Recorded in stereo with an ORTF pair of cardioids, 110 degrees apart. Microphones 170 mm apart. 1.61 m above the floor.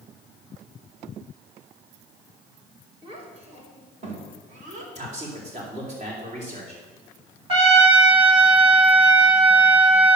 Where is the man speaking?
45° right, 5 m.